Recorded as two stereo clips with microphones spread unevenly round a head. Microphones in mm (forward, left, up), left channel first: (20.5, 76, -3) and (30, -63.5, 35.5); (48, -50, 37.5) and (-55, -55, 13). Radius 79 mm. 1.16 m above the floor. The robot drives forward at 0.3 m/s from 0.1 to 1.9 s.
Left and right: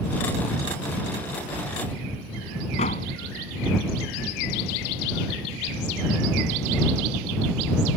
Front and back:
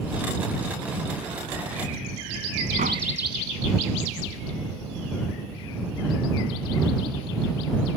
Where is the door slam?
145° left.